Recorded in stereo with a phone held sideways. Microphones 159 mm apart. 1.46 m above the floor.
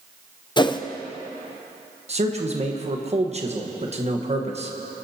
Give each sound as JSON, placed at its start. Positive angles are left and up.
{"t": 0.6, "sound": "a whoosh", "side_deg": 30, "distance_m": 0.6}
{"t": 2.1, "sound": "a man speaking", "side_deg": -45, "distance_m": 1.3}